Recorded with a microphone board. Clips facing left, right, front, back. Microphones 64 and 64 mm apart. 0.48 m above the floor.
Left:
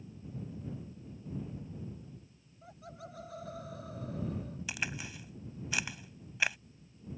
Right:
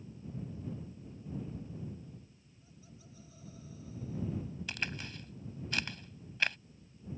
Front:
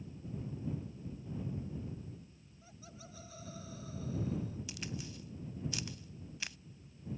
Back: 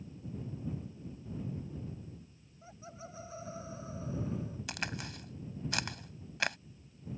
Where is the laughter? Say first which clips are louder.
Left 10 dB, back 6 dB; 120° left.